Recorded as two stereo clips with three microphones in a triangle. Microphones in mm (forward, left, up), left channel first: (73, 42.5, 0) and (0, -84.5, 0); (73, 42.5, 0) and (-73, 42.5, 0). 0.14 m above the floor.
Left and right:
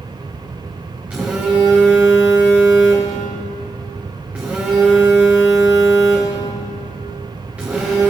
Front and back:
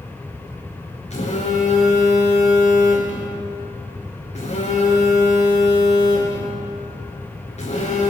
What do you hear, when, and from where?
1.1 s a phone buzzing: 40° right, 3.5 m